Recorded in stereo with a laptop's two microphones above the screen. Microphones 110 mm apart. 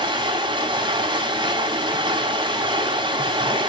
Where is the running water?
45° right (ahead or behind), 3 m.